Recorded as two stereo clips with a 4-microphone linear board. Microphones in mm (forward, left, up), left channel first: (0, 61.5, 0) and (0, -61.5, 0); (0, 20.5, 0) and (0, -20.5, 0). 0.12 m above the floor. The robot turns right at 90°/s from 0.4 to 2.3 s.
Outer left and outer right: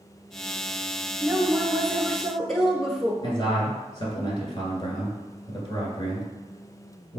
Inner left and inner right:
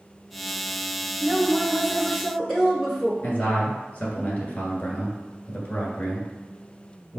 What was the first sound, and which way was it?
A woman speaking, 20° right (ahead or behind).